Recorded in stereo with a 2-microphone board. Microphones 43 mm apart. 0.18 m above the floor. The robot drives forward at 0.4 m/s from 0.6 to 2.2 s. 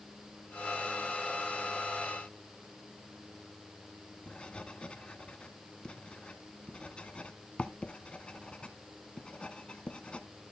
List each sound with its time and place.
4.3 s writing: 25° left (ahead or behind), 0.9 m